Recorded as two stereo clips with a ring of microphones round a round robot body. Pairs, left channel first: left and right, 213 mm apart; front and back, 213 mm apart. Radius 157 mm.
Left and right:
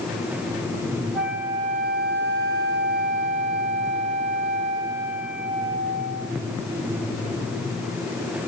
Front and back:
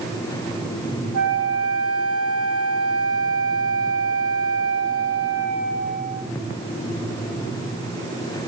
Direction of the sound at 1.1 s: 175° right.